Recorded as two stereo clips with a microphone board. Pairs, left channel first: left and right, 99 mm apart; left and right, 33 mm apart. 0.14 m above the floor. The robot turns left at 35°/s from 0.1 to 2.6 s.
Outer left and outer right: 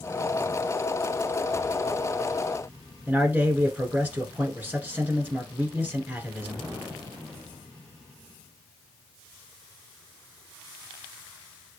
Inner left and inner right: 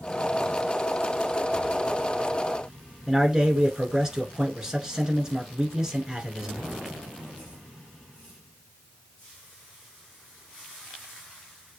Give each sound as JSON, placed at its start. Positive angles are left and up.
{"t": 3.1, "sound": "a man speaking", "side_deg": -20, "distance_m": 1.4}